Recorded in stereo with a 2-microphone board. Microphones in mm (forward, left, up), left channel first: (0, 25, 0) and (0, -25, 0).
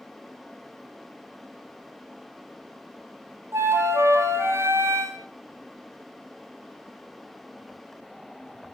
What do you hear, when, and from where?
3.5 s a flute: 70° right (ahead or behind), 0.9 m